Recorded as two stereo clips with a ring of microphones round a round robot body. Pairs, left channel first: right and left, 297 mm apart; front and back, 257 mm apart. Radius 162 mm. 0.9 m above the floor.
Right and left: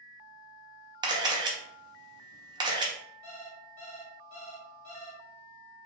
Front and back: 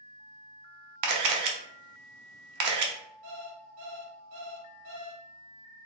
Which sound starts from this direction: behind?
A camera shutter, at 1.0 s.